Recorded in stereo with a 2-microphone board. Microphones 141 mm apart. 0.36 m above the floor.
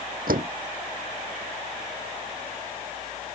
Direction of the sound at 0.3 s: 80° right.